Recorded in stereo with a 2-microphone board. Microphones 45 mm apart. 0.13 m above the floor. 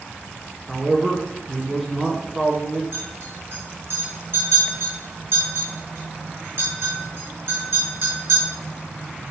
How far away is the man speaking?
About 1.7 m.